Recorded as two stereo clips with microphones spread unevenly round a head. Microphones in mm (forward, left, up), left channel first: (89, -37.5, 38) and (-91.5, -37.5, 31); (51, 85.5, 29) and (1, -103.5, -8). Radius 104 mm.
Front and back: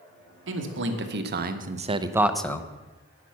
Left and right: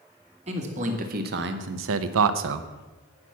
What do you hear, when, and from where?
0.5 s a man speaking: 165° right, 1.4 m; by 2.7 s 75° right, 0.8 m